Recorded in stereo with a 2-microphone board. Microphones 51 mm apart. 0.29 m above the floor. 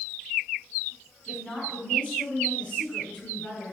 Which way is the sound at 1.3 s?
15° left (ahead or behind).